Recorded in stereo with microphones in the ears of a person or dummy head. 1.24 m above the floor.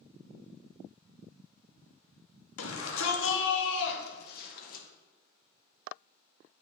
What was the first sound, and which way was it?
A shout, 85° left.